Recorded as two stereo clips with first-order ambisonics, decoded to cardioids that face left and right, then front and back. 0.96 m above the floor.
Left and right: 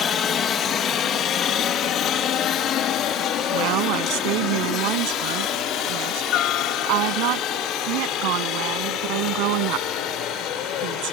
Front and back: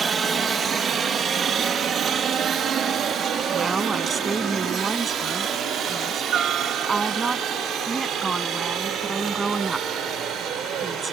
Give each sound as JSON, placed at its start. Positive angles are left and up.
{"t": 0.0, "sound": "a helicopter", "azimuth_deg": 125}
{"t": 3.5, "sound": "a woman speaking", "azimuth_deg": -105}